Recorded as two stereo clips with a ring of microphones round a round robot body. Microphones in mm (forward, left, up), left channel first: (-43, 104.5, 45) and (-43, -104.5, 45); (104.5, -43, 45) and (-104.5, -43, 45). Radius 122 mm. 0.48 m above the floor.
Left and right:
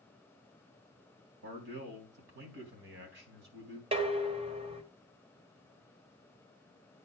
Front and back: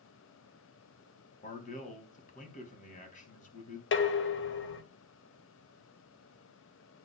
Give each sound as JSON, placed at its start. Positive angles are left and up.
{"t": 1.4, "sound": "a man speaking", "azimuth_deg": -55, "distance_m": 4.0}
{"t": 3.9, "sound": "dishes clattering", "azimuth_deg": -25, "distance_m": 1.5}